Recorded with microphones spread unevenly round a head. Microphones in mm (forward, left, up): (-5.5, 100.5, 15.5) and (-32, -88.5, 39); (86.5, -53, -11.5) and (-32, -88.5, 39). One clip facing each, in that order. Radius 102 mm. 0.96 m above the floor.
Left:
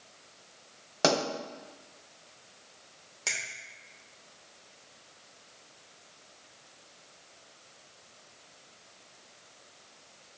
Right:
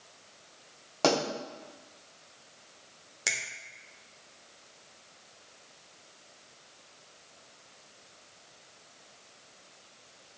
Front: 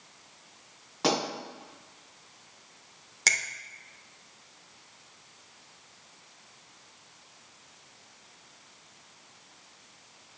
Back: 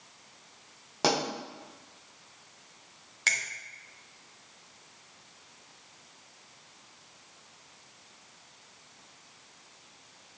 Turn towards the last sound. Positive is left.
turn(degrees=-25)